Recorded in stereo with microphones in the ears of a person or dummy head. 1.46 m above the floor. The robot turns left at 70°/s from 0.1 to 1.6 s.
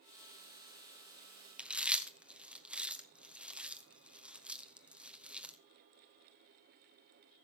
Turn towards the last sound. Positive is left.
turn(degrees=-5)  # may be behind; listen again after turning